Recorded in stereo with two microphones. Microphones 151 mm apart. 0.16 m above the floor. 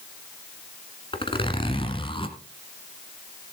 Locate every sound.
1.1 s a zipper: 35° left (ahead or behind), 1.8 m